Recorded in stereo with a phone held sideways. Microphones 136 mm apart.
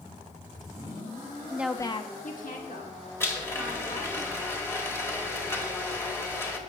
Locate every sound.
1.5 s a woman speaking: 20° right (ahead or behind), 0.7 m; by 4.2 s 85° left, 3.5 m
3.2 s a blender: 15° left (ahead or behind), 1.4 m